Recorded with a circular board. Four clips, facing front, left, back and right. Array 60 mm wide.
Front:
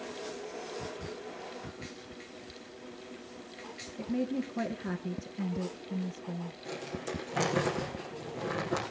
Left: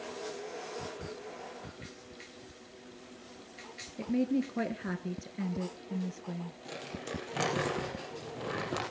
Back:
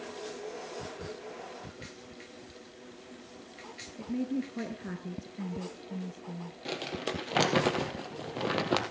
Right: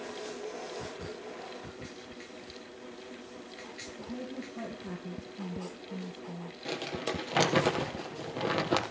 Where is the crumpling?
140° right, 3 m.